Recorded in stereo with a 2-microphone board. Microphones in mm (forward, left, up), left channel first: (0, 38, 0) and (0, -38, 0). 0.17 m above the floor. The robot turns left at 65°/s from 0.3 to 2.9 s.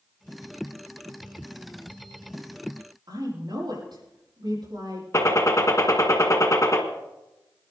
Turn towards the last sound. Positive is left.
turn(degrees=40)  # may be behind; listen again after turning